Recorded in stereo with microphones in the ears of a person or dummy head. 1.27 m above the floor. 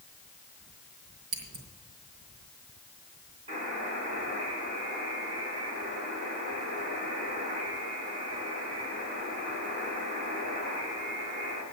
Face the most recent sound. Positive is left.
turn(degrees=-35)  # may be behind; listen again after turning